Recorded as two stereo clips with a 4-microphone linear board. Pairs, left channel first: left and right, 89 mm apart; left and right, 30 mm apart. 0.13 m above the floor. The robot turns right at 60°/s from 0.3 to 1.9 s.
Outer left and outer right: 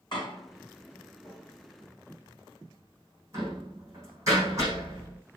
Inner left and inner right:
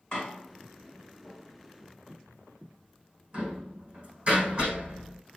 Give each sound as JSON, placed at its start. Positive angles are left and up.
{"t": 0.1, "sound": "a door slam", "side_deg": 55, "distance_m": 6.5}